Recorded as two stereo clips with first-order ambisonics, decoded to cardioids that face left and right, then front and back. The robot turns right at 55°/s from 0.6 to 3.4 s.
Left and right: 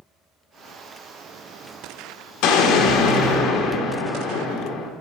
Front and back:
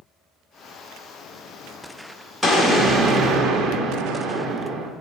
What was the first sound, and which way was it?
An explosion, 95° left.